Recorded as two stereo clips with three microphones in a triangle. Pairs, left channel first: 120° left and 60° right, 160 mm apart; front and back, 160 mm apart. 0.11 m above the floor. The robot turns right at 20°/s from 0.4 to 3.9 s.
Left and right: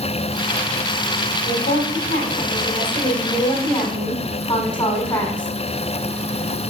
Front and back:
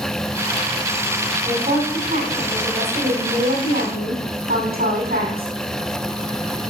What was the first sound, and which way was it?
A woman speaking, 135° left.